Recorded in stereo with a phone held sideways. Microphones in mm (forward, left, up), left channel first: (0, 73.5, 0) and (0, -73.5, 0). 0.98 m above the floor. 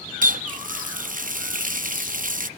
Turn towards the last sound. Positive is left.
turn(degrees=-65)  # may be behind; listen again after turning